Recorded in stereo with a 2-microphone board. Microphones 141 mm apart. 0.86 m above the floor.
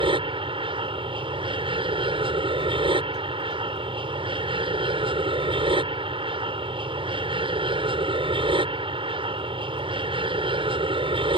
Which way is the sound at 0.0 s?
40° right (ahead or behind).